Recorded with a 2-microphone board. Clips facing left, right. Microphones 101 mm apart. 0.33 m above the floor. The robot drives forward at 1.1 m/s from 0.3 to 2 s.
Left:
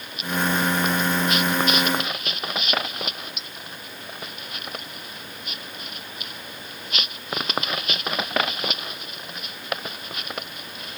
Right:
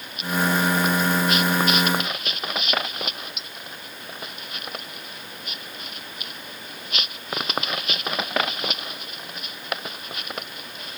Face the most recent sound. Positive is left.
No sound to turn to.